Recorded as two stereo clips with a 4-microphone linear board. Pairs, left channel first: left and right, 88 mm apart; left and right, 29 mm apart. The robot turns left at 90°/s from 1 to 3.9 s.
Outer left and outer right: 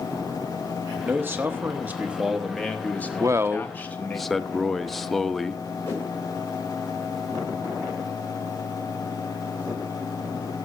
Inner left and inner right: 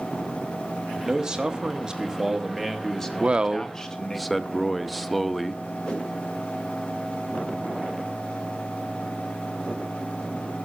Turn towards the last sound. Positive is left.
turn(degrees=30)  # may be behind; listen again after turning